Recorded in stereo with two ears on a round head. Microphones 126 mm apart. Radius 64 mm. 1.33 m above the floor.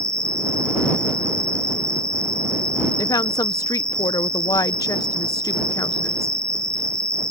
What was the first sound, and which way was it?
An insect, 5° left (ahead or behind).